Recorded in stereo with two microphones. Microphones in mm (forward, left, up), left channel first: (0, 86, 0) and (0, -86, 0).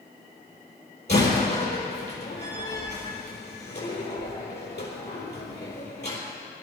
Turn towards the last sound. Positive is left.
turn(degrees=75)  # may be behind; listen again after turning